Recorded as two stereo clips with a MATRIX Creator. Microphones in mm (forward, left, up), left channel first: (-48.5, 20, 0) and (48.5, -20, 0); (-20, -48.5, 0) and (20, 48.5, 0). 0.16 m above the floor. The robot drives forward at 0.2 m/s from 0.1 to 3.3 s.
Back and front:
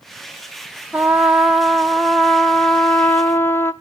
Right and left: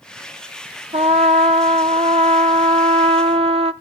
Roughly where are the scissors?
No scissors in this recording.